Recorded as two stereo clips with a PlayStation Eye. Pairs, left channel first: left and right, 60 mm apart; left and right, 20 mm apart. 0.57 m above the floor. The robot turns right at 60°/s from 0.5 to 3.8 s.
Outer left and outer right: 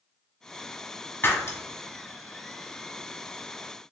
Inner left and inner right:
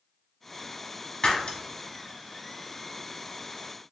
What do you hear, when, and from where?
1.2 s breaking glass: 35° left (ahead or behind), 1.1 m; by 1.6 s 60° left (ahead or behind), 1.1 m